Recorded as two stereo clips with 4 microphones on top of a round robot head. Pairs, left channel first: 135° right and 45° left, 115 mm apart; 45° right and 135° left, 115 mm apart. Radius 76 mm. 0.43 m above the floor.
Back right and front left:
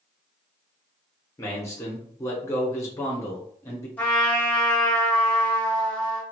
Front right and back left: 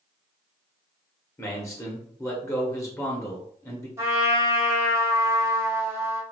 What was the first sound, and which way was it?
A man speaking, 90° right.